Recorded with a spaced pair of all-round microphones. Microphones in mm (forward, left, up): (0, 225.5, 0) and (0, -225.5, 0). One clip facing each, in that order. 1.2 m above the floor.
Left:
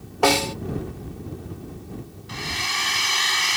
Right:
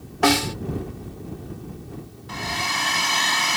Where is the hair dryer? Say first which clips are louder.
Right 4 dB; 70° right (ahead or behind).